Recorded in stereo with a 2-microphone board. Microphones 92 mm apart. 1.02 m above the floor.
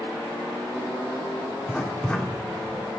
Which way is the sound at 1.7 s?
10° left (ahead or behind).